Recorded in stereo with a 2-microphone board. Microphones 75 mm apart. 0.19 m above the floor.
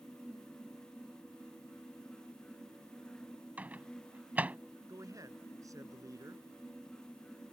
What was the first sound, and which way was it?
A microwave, 20° right (ahead or behind).